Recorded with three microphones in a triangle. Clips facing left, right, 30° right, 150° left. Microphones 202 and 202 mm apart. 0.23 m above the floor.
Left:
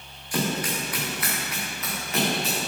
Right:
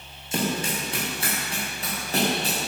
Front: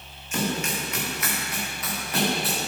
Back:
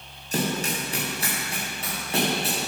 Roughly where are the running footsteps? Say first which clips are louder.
Even, back 1 dB; behind right.